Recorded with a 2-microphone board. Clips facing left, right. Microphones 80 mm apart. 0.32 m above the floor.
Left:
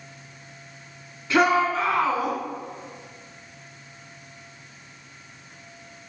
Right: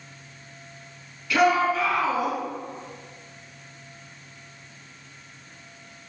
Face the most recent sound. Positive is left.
turn(degrees=45)  # may be behind; listen again after turning